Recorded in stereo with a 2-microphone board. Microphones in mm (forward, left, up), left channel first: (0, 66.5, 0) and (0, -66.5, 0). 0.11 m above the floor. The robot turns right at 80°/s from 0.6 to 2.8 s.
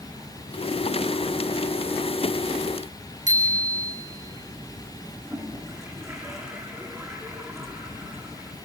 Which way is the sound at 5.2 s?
20° right (ahead or behind).